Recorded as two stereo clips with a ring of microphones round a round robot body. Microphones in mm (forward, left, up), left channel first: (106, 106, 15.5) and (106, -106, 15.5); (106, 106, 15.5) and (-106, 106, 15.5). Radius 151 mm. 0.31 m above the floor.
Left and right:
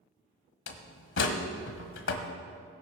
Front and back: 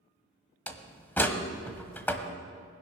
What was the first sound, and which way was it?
A door slam, 80° left.